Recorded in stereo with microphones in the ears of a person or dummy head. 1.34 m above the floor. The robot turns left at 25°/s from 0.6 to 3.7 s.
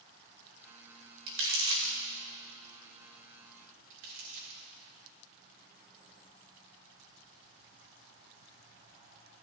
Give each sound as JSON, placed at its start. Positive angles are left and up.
{"t": 1.3, "sound": "crumpling", "side_deg": -75, "distance_m": 3.0}
{"t": 3.9, "sound": "crumpling", "side_deg": -75, "distance_m": 4.5}